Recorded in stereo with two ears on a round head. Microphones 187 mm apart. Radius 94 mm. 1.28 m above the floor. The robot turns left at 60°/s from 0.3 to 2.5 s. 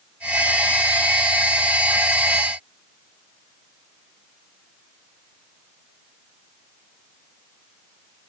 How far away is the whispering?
I don't hear whispering.